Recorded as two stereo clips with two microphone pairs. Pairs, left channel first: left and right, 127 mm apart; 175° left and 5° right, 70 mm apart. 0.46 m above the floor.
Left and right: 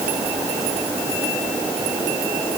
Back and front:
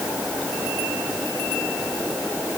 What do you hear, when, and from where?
Only background noise.